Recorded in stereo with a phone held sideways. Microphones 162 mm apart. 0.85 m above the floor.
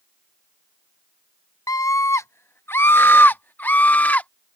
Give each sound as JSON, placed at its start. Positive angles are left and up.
{"t": 1.7, "sound": "a scream", "side_deg": 20}